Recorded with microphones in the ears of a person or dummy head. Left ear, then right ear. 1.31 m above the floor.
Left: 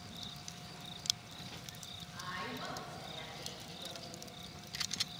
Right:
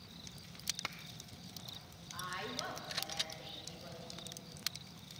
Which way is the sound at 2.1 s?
40° right (ahead or behind).